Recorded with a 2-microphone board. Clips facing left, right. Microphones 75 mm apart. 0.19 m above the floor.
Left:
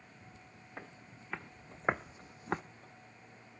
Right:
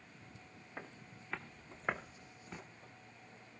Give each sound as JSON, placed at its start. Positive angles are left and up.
{"t": 0.8, "sound": "footsteps", "side_deg": 0, "distance_m": 1.6}